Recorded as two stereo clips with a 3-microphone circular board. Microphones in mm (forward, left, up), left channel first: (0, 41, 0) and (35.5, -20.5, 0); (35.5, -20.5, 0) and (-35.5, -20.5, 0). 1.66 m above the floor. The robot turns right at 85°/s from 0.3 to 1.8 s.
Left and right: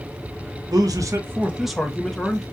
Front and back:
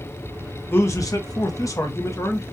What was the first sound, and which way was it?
A man speaking, 55° right.